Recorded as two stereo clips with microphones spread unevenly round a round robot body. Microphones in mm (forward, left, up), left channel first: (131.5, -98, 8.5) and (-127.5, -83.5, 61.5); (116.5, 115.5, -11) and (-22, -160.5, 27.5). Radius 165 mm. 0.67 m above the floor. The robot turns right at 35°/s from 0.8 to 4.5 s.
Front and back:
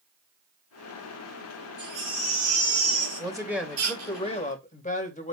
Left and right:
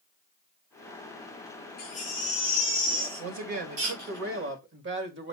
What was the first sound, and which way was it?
A baby crying, 125° left.